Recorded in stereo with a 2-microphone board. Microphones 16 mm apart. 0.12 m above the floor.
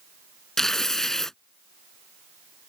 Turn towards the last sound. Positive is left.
turn(degrees=25)  # may be behind; listen again after turning